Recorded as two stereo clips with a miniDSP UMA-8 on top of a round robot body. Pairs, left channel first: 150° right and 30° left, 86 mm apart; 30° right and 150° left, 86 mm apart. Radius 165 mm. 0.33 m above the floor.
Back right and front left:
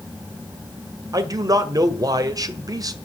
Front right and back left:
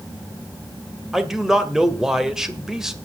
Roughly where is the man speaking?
Ahead left.